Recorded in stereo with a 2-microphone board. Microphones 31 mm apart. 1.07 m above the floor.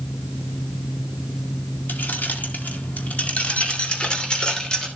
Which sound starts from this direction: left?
Keys jangling, at 1.9 s.